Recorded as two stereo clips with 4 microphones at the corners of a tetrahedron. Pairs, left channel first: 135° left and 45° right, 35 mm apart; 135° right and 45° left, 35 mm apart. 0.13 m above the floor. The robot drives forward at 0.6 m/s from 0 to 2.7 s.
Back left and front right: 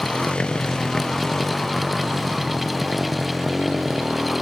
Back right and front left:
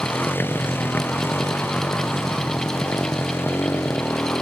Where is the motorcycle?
165° right; by 4.4 s 125° right.